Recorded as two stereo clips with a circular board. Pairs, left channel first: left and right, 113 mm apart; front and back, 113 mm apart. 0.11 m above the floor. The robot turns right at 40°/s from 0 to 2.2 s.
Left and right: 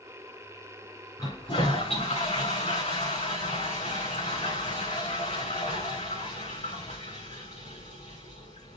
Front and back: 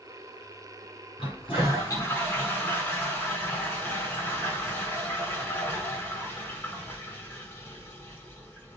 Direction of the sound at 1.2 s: 30° left.